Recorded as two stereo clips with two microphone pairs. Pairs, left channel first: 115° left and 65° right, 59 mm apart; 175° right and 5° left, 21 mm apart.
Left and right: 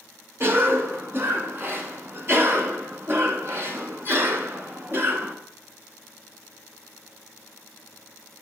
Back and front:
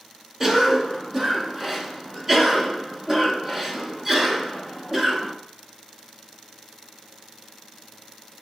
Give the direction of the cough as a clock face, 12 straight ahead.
2 o'clock.